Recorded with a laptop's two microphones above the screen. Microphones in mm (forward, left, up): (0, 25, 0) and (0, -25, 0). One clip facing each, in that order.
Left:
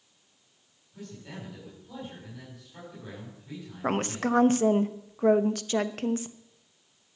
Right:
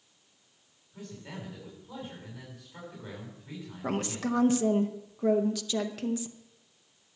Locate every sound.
0.9 s a man speaking: 15° right (ahead or behind), 7 m
3.8 s a woman speaking: 45° left (ahead or behind), 0.9 m